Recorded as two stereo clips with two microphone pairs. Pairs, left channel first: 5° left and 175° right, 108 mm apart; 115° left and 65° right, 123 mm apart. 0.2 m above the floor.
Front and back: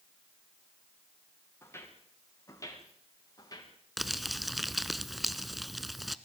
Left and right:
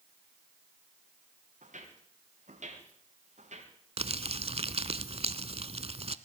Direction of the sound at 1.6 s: 65° right.